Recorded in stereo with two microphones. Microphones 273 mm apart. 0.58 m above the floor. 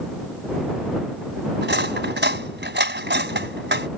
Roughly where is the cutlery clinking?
Right.